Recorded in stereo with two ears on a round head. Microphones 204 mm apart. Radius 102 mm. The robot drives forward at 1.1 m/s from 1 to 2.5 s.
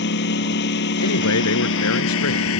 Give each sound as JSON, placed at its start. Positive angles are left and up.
{"t": 0.0, "sound": "a lawn mower", "side_deg": 50}
{"t": 1.0, "sound": "a man speaking", "side_deg": 80}